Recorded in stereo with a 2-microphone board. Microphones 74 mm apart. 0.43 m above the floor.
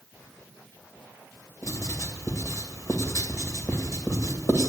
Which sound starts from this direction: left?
Writing, at 1.6 s.